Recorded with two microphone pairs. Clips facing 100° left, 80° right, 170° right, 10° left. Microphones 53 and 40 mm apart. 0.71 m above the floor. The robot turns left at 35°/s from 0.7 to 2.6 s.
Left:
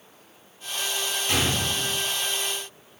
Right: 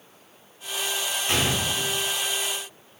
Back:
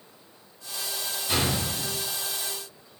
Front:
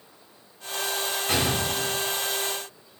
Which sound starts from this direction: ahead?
A gunshot, at 1.3 s.